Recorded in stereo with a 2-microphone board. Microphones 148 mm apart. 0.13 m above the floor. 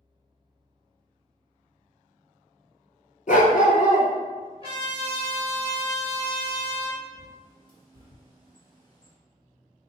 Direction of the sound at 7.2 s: 30° left (ahead or behind).